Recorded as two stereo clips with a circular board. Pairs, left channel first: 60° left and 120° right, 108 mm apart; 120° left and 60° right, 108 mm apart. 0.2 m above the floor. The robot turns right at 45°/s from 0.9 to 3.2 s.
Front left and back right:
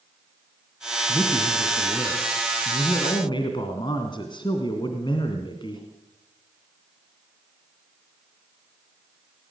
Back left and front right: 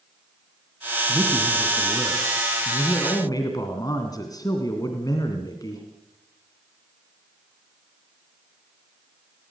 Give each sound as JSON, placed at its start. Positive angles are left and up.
{"t": 1.1, "sound": "a man speaking", "azimuth_deg": -15, "distance_m": 2.5}